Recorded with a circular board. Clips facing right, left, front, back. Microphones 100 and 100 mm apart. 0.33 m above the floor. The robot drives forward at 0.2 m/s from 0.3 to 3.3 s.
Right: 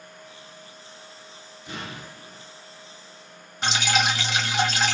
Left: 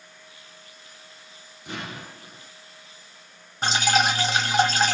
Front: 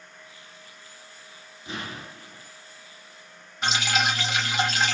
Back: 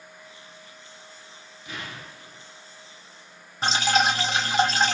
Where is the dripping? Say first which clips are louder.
Left 2 dB, back 4 dB; 130° left, 1.1 m.